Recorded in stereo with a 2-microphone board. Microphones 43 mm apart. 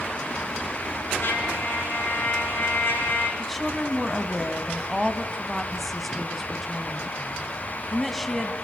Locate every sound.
1.2 s a trumpet: 55° left (ahead or behind), 3.5 m
3.4 s a woman speaking: centre (ahead or behind), 1.1 m